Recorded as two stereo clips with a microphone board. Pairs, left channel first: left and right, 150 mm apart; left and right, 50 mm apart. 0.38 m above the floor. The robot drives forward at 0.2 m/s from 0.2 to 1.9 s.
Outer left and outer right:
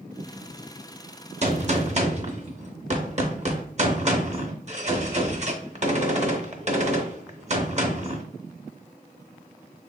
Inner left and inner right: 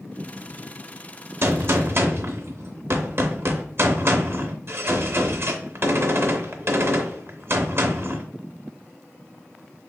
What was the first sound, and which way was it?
A gunshot, 50° right (ahead or behind).